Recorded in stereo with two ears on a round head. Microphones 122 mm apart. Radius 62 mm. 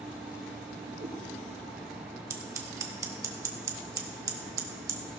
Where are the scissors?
25° right (ahead or behind), 1.1 m.